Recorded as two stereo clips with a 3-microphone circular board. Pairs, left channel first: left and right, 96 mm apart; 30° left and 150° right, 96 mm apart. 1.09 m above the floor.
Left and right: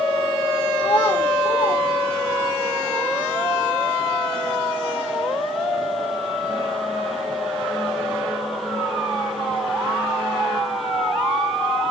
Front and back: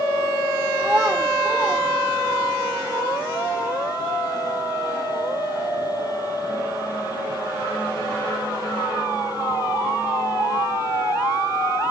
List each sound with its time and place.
0.8 s a child speaking: 135° left, 0.7 m; by 2.6 s 100° left, 2 m